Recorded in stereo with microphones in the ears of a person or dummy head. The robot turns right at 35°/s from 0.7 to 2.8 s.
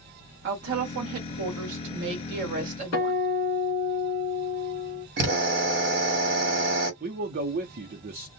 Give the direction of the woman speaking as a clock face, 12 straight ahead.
4 o'clock.